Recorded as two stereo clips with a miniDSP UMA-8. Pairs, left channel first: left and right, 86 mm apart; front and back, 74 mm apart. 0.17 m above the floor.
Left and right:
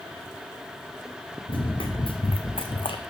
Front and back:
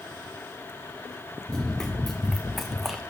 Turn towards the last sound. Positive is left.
turn(degrees=95)